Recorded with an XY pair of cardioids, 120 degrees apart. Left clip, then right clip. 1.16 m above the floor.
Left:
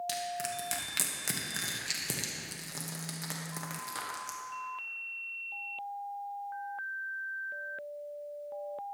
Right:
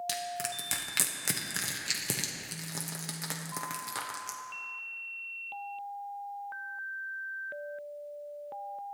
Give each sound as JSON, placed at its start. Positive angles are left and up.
{"t": 0.1, "sound": "crushing", "azimuth_deg": -20, "distance_m": 1.0}